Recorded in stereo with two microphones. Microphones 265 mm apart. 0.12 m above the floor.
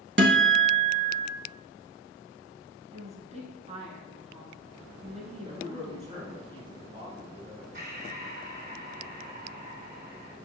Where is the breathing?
40° right (ahead or behind), 0.7 m.